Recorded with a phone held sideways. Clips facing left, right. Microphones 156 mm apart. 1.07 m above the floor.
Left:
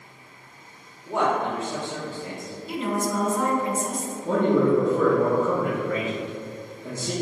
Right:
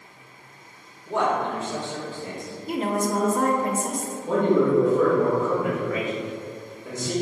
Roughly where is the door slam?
I don't hear a door slam.